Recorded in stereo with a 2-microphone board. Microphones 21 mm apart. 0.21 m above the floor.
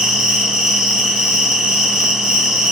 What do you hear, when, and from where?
0.0 s an insect: 75° right (ahead or behind), 1.7 m